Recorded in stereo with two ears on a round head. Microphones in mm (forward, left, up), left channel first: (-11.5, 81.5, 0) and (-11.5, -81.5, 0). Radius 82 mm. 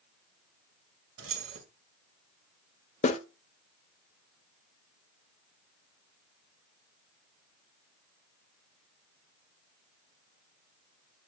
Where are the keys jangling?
85° right, 1.8 m.